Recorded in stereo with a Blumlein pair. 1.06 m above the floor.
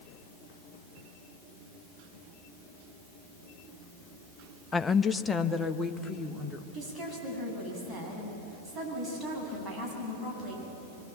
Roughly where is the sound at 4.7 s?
Ahead.